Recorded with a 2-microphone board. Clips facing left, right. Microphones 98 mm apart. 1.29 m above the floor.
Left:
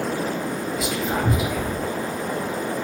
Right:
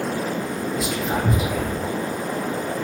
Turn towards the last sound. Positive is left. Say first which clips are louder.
# even
turn(degrees=5)  # may be behind; listen again after turning